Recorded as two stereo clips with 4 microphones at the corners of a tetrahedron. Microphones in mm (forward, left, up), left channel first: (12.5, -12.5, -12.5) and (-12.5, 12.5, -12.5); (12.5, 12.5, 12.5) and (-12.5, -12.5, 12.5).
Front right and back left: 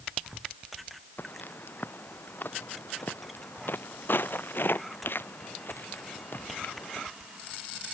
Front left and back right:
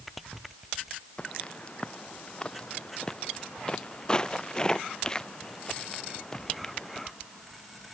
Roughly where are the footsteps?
Ahead.